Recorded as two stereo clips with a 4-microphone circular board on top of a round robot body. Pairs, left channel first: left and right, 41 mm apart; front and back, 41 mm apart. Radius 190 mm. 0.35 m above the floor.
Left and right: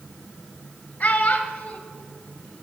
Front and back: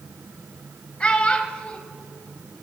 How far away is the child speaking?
About 1.1 m.